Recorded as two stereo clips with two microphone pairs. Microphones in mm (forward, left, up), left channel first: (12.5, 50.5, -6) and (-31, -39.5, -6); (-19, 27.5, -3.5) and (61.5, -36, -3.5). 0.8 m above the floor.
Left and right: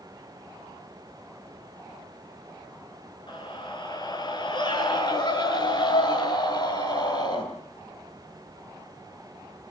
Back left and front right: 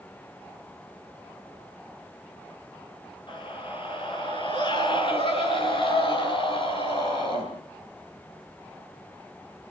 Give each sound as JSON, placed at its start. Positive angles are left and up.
{"t": 3.3, "sound": "a scream", "azimuth_deg": 105, "distance_m": 8.5}